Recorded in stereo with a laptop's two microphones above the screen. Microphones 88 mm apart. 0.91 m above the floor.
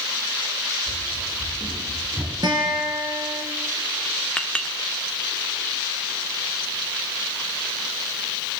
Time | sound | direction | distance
0.9 | running footsteps | 15° left (ahead or behind) | 5 m
2.4 | a guitar | 50° right (ahead or behind) | 4 m
4.4 | a clink | 10° left (ahead or behind) | 1.5 m